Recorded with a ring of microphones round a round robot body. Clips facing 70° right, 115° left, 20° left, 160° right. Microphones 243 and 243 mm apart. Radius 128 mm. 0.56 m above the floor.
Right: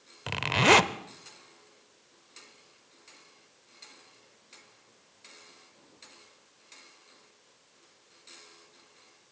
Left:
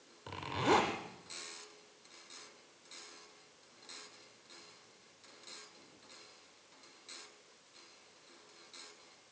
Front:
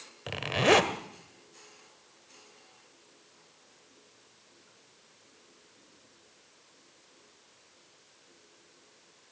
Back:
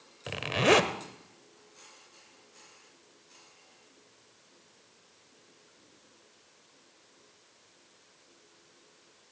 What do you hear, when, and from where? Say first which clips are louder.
0.3 s a zipper: right 7 dB, even; 70° right, 0.7 m